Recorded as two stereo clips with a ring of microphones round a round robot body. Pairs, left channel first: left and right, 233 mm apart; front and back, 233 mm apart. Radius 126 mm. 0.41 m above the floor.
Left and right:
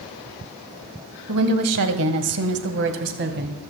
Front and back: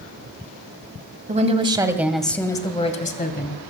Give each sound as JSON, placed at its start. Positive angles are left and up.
{"t": 1.3, "sound": "a woman speaking", "azimuth_deg": -125, "distance_m": 2.0}